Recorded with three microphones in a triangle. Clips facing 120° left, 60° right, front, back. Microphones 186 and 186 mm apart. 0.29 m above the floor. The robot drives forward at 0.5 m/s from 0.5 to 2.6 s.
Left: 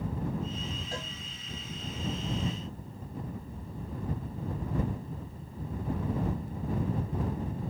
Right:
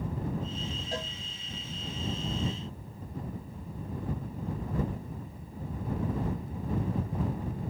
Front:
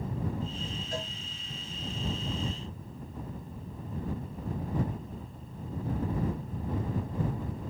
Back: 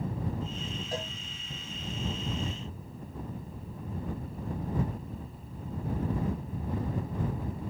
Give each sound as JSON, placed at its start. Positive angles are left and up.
{"t": 0.9, "sound": "a cowbell", "azimuth_deg": -130, "distance_m": 5.0}